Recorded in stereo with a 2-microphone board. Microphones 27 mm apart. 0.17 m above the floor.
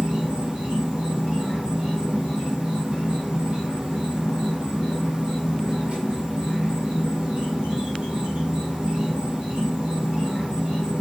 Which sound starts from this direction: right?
An insect, at 0.0 s.